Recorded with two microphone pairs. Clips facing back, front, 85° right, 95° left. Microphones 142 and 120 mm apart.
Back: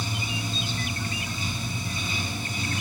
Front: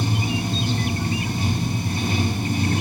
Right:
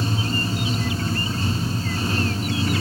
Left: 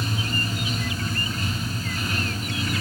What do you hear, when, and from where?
0.0 s running water: 30° right, 0.9 m